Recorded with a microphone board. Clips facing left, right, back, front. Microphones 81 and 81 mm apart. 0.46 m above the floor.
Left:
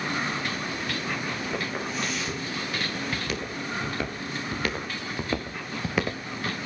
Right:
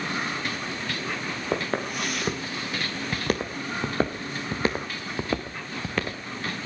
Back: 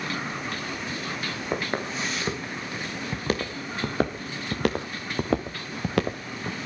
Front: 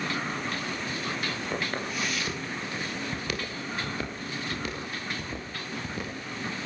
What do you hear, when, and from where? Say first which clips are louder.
1.5 s footsteps: right 3 dB, back 6 dB; 115° right, 6 m; by 6.6 s 160° left, 3 m